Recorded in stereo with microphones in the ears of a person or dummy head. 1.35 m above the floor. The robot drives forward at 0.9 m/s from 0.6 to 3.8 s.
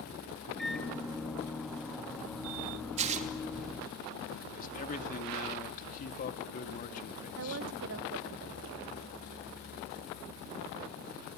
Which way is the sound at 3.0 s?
40° right (ahead or behind).